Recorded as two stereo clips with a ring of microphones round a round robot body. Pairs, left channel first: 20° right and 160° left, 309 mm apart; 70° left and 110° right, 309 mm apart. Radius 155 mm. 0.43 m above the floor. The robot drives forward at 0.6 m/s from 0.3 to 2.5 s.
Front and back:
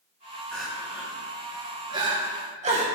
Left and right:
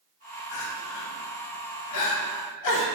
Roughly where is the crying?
Ahead left.